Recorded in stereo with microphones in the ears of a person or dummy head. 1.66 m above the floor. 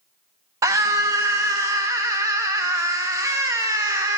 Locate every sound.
0.6 s a scream: 15° right (ahead or behind), 0.7 m